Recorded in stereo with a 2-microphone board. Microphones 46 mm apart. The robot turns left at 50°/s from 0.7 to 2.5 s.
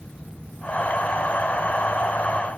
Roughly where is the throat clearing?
No throat clearing in this recording.